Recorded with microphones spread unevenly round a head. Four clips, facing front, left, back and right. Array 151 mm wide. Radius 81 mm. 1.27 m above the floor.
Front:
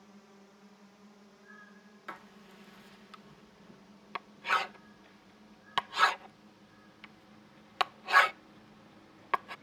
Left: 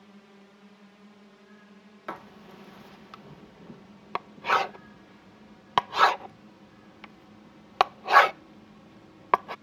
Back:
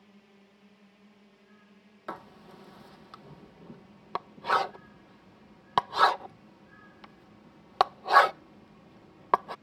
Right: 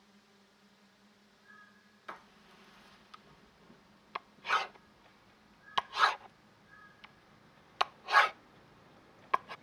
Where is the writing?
125° left.